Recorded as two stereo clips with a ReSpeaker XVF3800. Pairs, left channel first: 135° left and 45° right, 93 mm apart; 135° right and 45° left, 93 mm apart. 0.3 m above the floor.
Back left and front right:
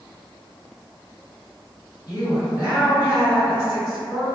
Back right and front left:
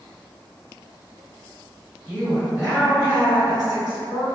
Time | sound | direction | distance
2.1 | a woman speaking | 115° left | 2.0 m